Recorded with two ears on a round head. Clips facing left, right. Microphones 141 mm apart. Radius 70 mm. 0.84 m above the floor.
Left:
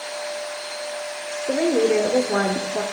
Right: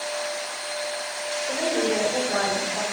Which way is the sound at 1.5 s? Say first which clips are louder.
Left 7 dB; 55° left (ahead or behind).